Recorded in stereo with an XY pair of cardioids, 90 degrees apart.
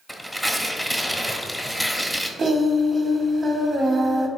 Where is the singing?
40° right, 0.9 m.